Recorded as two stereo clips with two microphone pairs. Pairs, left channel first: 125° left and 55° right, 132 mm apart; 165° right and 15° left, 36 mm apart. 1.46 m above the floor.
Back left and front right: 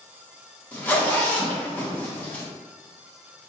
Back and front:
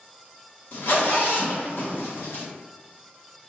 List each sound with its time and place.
0.7 s a zipper: 155° right, 1.0 m